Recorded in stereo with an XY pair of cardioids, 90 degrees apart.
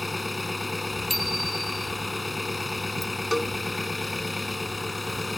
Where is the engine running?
15° left.